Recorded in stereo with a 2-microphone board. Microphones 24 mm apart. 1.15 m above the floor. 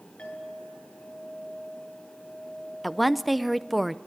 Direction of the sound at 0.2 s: 70° left (ahead or behind).